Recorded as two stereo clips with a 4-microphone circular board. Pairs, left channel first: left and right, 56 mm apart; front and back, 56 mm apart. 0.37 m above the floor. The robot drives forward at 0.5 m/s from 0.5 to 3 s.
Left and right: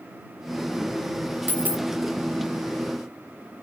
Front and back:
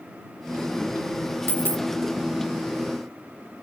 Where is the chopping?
No chopping in this recording.